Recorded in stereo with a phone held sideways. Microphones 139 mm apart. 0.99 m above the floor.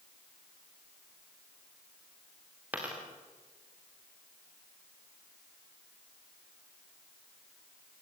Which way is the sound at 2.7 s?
10° right (ahead or behind).